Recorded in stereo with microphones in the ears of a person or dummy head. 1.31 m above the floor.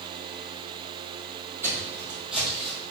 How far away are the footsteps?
About 3 m.